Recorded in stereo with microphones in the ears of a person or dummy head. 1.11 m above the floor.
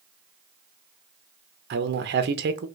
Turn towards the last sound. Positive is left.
turn(degrees=-50)  # may be behind; listen again after turning